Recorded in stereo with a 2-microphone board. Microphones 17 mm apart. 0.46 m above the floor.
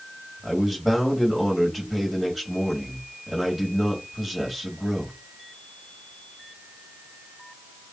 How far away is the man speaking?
About 2 m.